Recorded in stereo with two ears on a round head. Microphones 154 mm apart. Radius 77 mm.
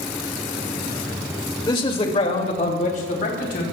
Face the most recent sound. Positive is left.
turn(degrees=55)  # may be behind; listen again after turning